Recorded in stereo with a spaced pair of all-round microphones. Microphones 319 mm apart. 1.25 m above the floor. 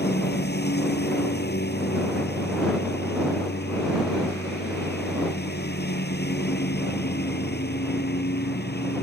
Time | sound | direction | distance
0.0 | a lawn mower | 30° left (ahead or behind) | ?